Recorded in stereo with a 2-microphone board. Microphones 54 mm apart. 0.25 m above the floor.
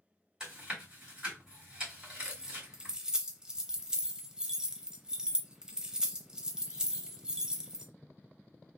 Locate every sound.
0.4 s chewing: 15° right (ahead or behind), 3 m
2.2 s keys jangling: 15° right (ahead or behind), 0.6 m